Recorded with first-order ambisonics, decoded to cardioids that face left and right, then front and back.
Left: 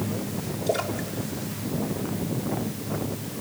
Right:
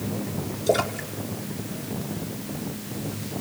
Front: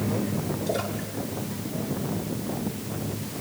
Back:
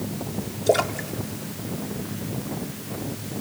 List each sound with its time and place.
0.7 s a splash: 155° right, 1.1 m